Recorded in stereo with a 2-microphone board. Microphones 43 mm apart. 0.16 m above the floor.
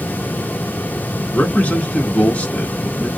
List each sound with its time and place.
1.3 s a man speaking: 35° left (ahead or behind), 1.3 m